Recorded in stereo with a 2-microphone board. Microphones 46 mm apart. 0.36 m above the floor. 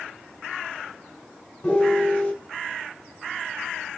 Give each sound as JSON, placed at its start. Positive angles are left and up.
{"t": 1.6, "sound": "a piano", "side_deg": 25, "distance_m": 1.4}